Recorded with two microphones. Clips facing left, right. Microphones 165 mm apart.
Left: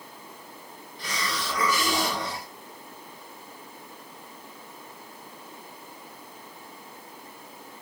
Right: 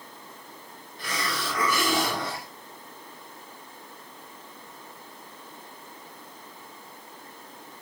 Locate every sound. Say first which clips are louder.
1.0 s a hiss: right 1 dB; 55° right (ahead or behind), 1.7 m